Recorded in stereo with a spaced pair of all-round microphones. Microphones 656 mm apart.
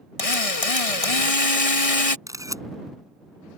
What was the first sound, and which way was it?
A drill, 60° left (ahead or behind).